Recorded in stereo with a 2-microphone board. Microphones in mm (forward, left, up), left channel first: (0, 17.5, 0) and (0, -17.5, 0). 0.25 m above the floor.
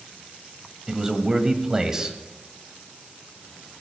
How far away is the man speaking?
About 1.6 m.